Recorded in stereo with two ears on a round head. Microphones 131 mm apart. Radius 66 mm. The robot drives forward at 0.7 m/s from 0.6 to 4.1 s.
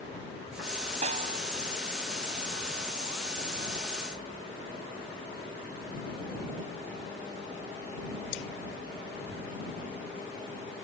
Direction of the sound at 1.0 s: 50° right (ahead or behind).